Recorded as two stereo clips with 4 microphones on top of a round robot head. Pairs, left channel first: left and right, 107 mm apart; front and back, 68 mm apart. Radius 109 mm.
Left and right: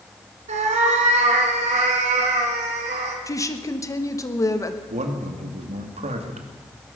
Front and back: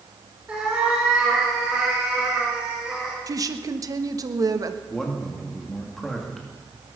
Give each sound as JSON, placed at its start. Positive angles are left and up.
{"t": 0.5, "sound": "a cat meowing", "azimuth_deg": -100, "distance_m": 2.0}
{"t": 3.3, "sound": "a woman speaking", "azimuth_deg": 150, "distance_m": 1.4}
{"t": 4.9, "sound": "a man speaking", "azimuth_deg": -85, "distance_m": 2.0}